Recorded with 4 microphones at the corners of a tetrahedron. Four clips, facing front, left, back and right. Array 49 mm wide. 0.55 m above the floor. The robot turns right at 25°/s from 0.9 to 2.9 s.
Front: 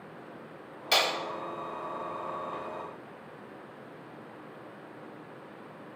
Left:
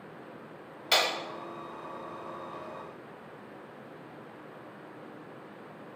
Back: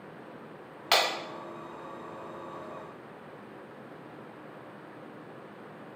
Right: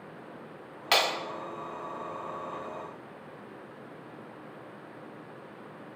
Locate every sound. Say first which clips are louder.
0.9 s breaking glass: right 1 dB, back 1 dB; 135° right, 1.4 m; by 1.1 s 130° right, 1.4 m